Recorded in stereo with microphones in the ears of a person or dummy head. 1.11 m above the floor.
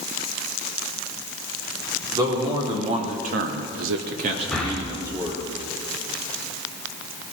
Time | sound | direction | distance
2.1 | a man speaking | 25° right (ahead or behind) | 2.5 m
4.5 | breathing | 5° left (ahead or behind) | 1.3 m